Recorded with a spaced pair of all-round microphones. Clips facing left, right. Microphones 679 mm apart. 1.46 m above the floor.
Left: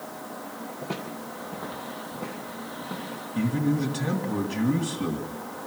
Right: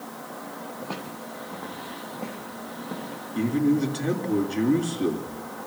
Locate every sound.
0.8 s footsteps: 45° left (ahead or behind), 2.5 m; by 3.2 s 35° left (ahead or behind), 5.5 m
3.4 s a man speaking: 35° left (ahead or behind), 2.5 m